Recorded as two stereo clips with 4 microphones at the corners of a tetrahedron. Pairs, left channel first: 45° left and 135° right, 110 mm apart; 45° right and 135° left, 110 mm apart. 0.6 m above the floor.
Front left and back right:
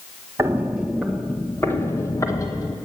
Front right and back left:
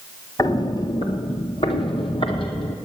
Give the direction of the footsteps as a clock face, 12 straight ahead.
3 o'clock.